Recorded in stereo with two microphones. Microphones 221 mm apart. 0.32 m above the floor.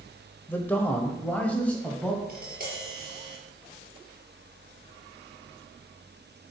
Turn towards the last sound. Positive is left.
turn(degrees=-40)  # may be behind; listen again after turning